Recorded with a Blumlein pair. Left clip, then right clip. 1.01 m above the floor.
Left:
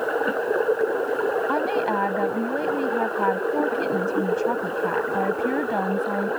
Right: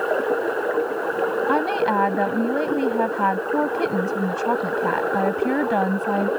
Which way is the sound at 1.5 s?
10° right.